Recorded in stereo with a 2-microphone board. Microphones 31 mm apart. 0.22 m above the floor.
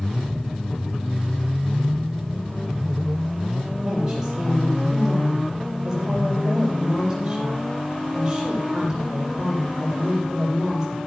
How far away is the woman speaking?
About 4.5 m.